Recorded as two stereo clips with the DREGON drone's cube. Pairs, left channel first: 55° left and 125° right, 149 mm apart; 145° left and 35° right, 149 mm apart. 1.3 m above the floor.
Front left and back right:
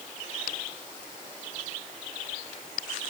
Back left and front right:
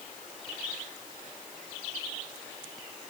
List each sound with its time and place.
Only background noise.